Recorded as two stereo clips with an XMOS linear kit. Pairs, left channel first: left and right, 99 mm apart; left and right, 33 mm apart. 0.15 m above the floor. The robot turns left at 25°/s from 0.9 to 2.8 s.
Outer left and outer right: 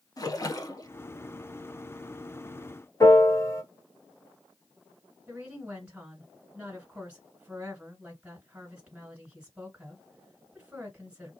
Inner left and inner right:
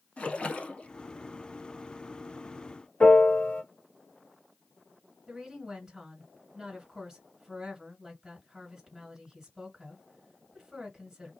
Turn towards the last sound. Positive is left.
turn(degrees=-15)  # may be behind; listen again after turning